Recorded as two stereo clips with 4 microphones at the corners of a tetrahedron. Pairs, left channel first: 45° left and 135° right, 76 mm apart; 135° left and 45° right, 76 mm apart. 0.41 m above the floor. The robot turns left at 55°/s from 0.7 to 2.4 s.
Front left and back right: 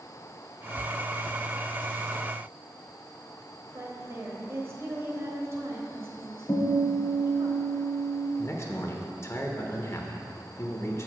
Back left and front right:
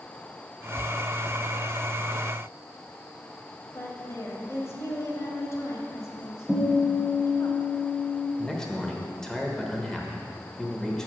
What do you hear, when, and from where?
3.7 s a woman speaking: straight behind, 1.5 m
6.5 s a guitar: 50° left, 1.5 m
8.4 s a man speaking: 60° left, 1.0 m